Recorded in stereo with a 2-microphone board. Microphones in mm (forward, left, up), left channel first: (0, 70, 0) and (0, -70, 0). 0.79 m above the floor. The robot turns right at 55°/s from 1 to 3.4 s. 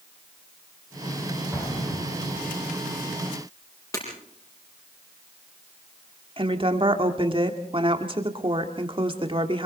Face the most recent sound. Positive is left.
turn(degrees=-40)  # may be behind; listen again after turning